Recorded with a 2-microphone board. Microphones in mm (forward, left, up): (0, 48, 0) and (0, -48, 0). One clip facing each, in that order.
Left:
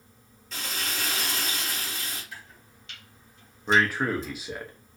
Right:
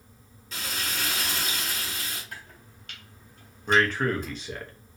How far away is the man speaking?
About 0.6 m.